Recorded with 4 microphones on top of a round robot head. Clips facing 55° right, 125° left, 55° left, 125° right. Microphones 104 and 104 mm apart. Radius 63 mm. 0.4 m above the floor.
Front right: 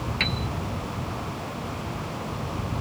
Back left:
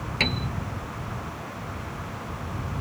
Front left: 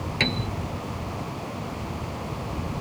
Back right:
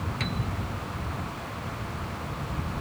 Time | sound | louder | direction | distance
0.2 | a piano | back left 4 dB, front left 7 dB | 75° left | ?